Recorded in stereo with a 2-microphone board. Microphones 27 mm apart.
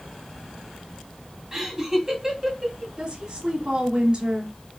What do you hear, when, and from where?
1.5 s laughter: 15° right (ahead or behind), 1.2 m
3.0 s a woman speaking: 30° right (ahead or behind), 1.4 m